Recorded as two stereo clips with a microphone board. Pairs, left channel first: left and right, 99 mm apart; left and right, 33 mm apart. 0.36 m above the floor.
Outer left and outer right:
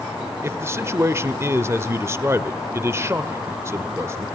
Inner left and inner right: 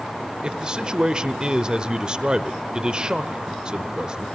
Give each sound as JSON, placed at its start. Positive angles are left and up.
{"t": 0.4, "sound": "a man speaking", "side_deg": -30, "distance_m": 0.8}